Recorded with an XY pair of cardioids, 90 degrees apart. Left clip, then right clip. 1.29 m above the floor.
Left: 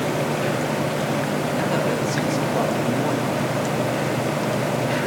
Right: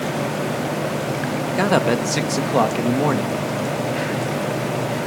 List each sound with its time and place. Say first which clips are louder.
1.6 s a man speaking: right 7 dB; 70° right, 1.6 m